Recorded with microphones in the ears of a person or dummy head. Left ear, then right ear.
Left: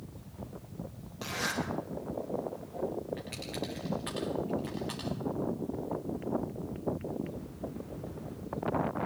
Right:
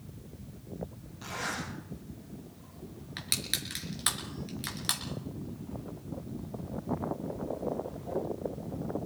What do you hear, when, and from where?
1.2 s a zipper: 30° left (ahead or behind), 8.5 m
3.2 s crushing: 65° right (ahead or behind), 4 m